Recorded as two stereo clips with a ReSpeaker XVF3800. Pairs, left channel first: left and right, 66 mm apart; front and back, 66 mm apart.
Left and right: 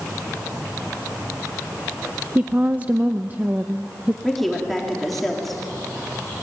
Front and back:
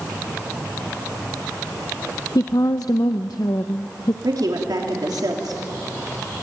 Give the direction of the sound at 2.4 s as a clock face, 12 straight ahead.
1 o'clock.